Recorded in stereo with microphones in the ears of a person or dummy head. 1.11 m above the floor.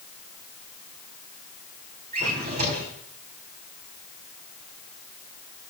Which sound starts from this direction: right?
A drawer, at 2.1 s.